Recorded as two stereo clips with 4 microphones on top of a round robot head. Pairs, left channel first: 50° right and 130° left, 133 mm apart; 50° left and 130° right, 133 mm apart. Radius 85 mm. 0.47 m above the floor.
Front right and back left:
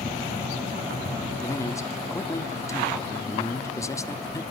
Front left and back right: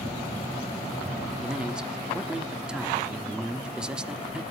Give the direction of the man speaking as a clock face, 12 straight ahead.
2 o'clock.